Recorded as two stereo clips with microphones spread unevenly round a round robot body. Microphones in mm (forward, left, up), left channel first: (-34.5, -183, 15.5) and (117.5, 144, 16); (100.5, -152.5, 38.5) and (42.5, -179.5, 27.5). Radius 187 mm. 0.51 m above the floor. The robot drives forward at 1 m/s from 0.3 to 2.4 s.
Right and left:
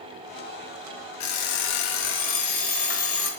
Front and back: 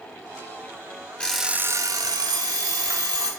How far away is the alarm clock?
About 0.7 m.